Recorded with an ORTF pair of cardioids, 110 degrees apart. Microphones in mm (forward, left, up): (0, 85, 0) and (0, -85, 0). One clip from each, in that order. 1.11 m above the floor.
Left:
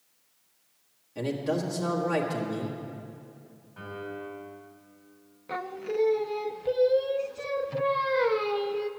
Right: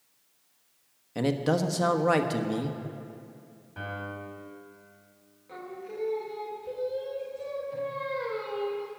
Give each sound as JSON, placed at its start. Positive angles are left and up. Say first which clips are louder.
{"t": 1.1, "sound": "a man speaking", "louder": "right 3 dB", "azimuth_deg": -55, "distance_m": 1.4}
{"t": 3.8, "sound": "a piano", "louder": "right 1 dB", "azimuth_deg": -55, "distance_m": 3.5}
{"t": 5.5, "sound": "singing", "louder": "left 8 dB", "azimuth_deg": 65, "distance_m": 0.7}